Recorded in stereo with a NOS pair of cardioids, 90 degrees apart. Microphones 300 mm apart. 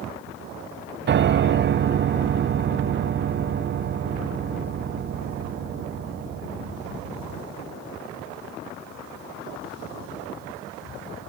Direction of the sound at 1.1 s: 40° right.